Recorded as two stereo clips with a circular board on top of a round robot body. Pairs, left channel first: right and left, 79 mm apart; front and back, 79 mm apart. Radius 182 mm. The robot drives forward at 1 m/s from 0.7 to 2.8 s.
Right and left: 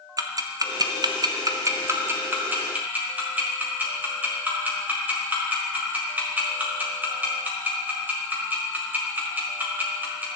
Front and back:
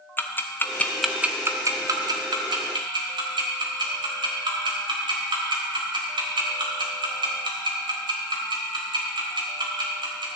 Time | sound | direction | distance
0.2 | ticking | 60° left | 0.9 m